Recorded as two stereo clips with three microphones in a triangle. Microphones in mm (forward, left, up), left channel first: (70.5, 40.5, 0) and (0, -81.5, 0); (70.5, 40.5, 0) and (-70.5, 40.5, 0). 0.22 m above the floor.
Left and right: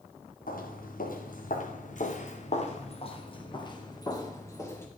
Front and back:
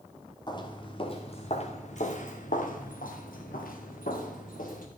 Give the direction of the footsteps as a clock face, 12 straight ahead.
10 o'clock.